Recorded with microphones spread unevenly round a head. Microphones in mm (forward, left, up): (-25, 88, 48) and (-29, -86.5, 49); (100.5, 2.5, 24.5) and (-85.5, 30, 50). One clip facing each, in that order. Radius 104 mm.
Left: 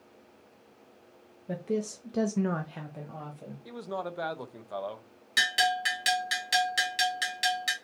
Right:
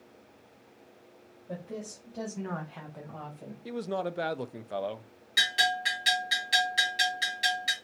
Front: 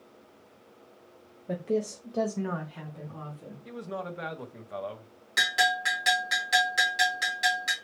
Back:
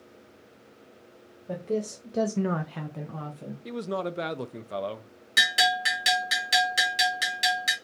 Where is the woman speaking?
65° left, 0.9 m; by 3.5 s straight behind, 1.1 m.